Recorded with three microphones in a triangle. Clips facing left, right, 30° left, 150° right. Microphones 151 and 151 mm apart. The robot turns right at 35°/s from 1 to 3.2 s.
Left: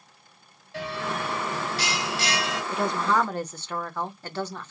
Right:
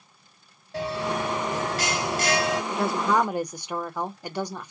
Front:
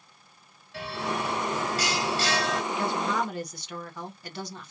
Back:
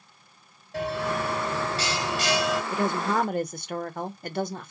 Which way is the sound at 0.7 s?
125° right.